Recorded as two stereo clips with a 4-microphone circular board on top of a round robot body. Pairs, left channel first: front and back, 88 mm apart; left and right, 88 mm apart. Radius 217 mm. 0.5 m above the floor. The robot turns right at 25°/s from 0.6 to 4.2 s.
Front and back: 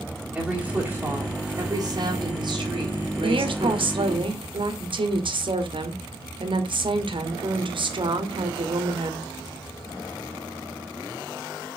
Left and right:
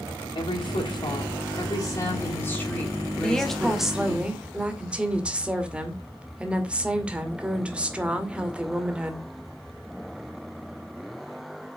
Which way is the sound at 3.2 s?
170° left.